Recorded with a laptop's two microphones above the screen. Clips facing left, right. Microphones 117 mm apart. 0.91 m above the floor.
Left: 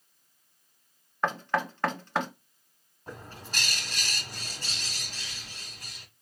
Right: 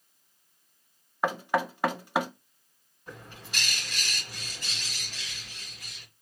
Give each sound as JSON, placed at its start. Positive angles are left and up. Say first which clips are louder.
{"t": 1.2, "sound": "knocking", "louder": "right 1 dB", "side_deg": -10, "distance_m": 0.8}
{"t": 3.1, "sound": "a bird", "louder": "left 2 dB", "side_deg": 35, "distance_m": 1.5}